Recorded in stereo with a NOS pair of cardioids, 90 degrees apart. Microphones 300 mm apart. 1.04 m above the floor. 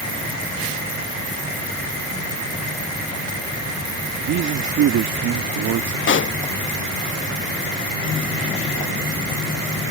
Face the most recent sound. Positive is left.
turn(degrees=40)